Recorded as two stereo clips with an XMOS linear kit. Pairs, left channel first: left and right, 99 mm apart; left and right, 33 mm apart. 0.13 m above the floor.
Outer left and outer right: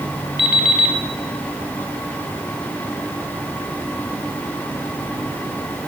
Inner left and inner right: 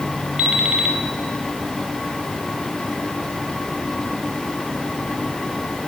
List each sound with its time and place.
0.4 s an alarm clock: 15° right (ahead or behind), 2 m